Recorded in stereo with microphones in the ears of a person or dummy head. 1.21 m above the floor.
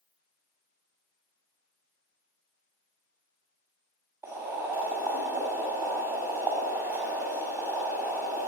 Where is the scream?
No scream in this recording.